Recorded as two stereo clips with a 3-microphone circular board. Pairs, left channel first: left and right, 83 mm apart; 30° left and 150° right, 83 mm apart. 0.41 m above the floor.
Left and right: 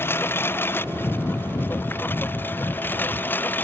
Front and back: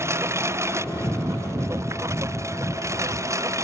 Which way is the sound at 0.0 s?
150° left.